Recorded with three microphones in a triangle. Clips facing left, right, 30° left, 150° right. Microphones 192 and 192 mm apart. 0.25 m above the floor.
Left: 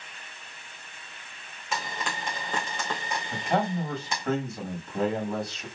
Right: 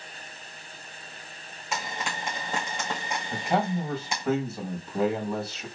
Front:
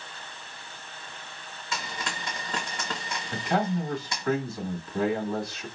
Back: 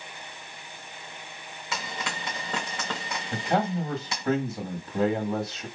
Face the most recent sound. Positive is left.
turn(degrees=-165)